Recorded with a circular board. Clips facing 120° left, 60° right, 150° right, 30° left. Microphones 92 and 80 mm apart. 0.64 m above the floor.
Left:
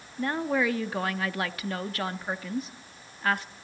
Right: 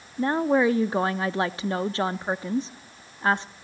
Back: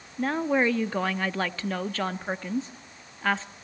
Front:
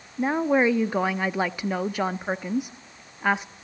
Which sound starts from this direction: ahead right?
A woman speaking, at 0.2 s.